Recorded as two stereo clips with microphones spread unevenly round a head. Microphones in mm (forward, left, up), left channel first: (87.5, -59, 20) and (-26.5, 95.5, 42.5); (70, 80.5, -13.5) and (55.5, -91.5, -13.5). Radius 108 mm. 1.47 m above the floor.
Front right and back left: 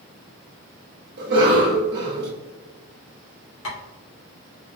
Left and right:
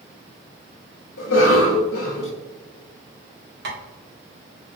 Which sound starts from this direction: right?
Tapping, at 3.6 s.